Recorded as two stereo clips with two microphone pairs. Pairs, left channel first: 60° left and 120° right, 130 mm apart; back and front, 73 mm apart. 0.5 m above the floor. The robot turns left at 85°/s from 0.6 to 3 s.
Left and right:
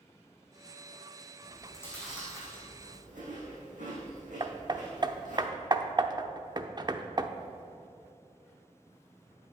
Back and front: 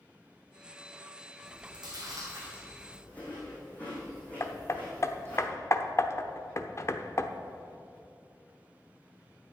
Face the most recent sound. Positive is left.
turn(degrees=-160)